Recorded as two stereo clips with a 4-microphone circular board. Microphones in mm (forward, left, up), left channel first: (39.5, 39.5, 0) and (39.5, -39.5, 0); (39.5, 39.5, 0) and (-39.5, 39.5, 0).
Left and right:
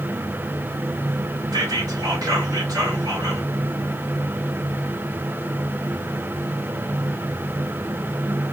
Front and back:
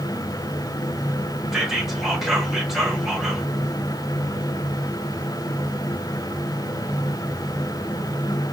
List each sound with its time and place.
1.5 s whispering: 95° right, 1.0 m